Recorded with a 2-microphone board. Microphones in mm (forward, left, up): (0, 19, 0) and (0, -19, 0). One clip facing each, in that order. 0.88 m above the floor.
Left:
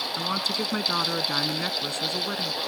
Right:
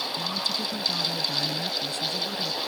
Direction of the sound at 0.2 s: 60° left (ahead or behind).